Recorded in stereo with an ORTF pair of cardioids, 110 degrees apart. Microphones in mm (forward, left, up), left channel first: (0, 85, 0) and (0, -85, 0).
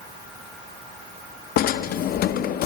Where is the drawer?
65° left, 1.1 m.